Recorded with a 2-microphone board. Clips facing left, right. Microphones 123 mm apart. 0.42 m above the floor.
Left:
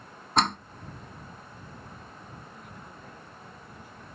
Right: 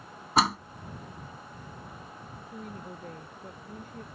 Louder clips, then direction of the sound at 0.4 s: Right 1 dB; 5° right (ahead or behind).